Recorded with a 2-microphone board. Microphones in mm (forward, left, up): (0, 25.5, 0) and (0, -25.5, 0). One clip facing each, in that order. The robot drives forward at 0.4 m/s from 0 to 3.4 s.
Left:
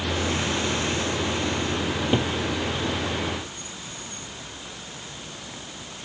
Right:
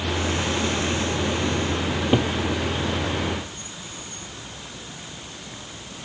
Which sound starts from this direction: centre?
A cupboard door, at 1.9 s.